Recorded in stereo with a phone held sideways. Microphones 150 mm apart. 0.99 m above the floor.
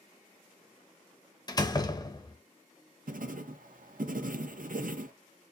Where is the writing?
70° right (ahead or behind), 0.5 m.